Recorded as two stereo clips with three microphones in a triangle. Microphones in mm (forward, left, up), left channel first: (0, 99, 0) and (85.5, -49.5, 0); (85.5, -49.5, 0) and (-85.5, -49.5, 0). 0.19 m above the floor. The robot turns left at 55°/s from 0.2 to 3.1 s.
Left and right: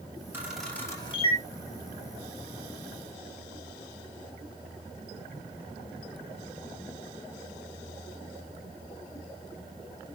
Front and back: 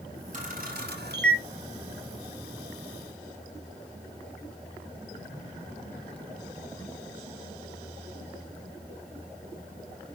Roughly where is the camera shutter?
Behind right.